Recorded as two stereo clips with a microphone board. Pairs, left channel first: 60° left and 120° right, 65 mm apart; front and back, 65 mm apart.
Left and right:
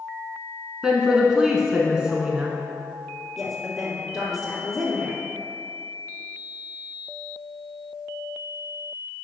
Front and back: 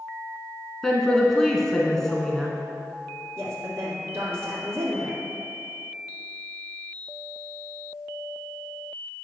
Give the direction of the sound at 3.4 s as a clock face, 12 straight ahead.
7 o'clock.